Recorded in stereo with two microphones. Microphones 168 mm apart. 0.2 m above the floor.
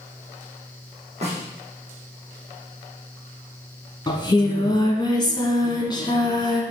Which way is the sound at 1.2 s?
40° right (ahead or behind).